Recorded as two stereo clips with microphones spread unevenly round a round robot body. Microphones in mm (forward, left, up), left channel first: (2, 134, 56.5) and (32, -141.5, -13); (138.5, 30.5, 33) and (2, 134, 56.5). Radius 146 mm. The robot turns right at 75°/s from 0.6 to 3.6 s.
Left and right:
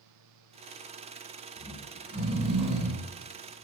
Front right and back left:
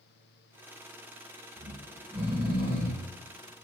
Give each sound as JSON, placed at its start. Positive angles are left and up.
{"t": 1.6, "sound": "snoring", "azimuth_deg": 180, "distance_m": 2.5}